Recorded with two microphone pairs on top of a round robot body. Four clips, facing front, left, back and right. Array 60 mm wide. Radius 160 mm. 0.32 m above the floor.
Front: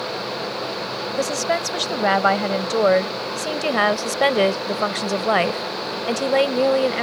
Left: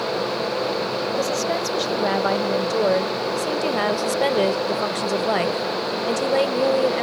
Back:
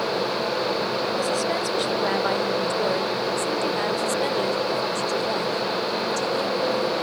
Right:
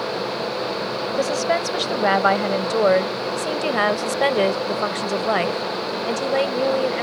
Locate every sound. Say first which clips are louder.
1.2 s a woman speaking: right 5 dB, front 2 dB; 55° right; by 7.0 s 5° left